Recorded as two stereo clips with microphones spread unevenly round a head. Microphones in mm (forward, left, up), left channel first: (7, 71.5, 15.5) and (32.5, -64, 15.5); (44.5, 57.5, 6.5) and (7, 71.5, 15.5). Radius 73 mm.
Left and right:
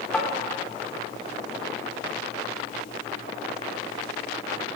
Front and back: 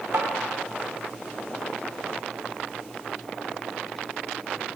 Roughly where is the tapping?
Behind.